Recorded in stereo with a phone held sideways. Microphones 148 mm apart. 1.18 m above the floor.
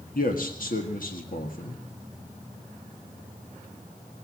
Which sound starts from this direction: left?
A man speaking, at 0.1 s.